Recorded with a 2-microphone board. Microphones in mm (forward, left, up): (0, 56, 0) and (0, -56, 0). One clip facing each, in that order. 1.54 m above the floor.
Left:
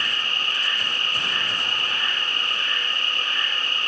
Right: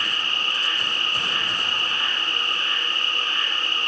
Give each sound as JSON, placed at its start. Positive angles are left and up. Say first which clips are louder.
{"t": 0.0, "sound": "an insect", "louder": "right 1 dB", "side_deg": -40, "distance_m": 1.0}